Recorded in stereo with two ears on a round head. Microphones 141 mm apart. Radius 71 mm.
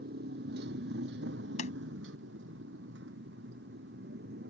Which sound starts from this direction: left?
A sliding door, at 1.6 s.